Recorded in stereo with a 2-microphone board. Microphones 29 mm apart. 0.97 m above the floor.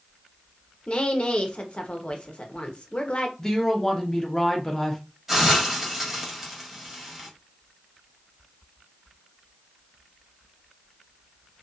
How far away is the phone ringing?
No phone ringing in this recording.